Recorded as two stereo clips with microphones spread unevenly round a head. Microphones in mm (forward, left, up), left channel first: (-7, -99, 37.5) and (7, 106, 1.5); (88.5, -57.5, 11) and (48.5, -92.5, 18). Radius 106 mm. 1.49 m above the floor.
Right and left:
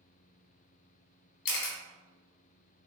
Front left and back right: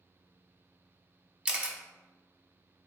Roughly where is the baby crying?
No baby crying in this recording.